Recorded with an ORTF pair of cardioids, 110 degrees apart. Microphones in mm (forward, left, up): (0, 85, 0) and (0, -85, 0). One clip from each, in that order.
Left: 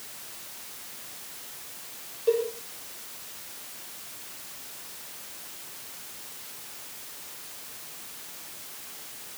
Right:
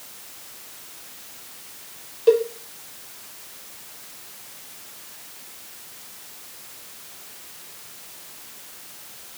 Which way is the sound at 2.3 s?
55° right.